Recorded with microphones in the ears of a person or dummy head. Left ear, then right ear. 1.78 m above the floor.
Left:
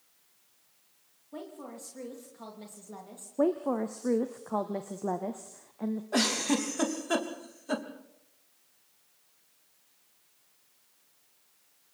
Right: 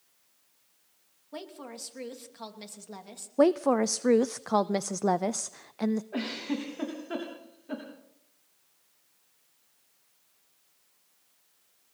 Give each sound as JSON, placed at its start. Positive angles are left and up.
{"t": 1.3, "sound": "a woman speaking", "side_deg": -40, "distance_m": 3.0}
{"t": 3.4, "sound": "a woman speaking", "side_deg": -80, "distance_m": 0.5}
{"t": 6.1, "sound": "a giggle", "side_deg": 85, "distance_m": 3.0}